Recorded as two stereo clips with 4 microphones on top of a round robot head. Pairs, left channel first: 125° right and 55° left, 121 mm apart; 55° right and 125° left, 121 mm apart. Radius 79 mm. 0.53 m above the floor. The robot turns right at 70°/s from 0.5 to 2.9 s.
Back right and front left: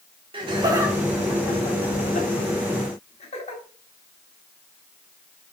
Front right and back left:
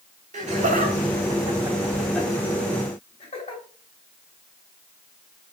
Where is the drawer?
I don't hear a drawer.